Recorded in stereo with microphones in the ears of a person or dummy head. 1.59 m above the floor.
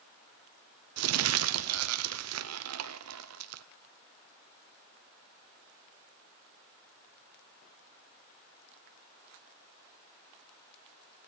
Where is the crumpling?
80° right, 0.5 m.